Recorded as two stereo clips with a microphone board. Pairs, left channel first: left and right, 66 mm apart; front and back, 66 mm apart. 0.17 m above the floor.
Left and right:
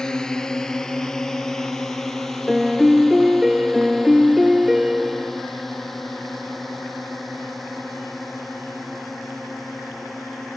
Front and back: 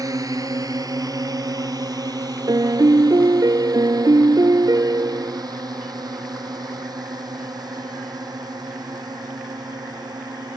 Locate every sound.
0.0 s a drone: 170° left; by 10.6 s straight behind
2.5 s a piano: 175° right